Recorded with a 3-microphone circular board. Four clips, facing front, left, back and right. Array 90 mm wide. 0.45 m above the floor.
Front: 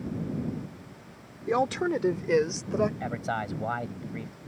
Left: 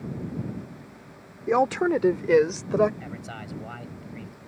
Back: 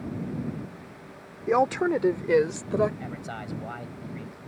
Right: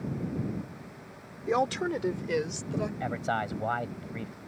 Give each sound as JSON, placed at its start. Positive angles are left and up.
{"t": 1.5, "sound": "a woman speaking", "azimuth_deg": 135}
{"t": 3.0, "sound": "a man speaking", "azimuth_deg": -60}